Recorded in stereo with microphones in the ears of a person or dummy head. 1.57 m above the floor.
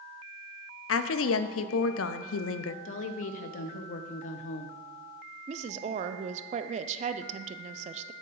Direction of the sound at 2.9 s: 50° left (ahead or behind).